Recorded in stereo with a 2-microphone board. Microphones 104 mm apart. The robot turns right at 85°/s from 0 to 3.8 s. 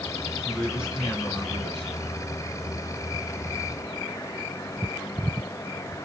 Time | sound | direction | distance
0.4 | a man speaking | 40° right | 2 m